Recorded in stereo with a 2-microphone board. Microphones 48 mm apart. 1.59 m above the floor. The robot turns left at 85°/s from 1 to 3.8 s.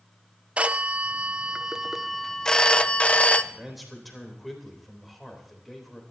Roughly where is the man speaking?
Right.